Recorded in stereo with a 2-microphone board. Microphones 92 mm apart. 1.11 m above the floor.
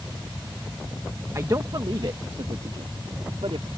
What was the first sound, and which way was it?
A man speaking, 30° right (ahead or behind).